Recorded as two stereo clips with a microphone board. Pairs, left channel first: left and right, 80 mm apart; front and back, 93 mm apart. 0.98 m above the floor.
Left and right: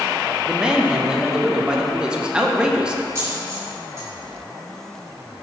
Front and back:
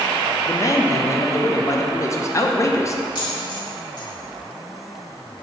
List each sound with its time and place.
0.5 s a man speaking: 15° right, 0.6 m
3.1 s a dropped coin: 35° right, 2.0 m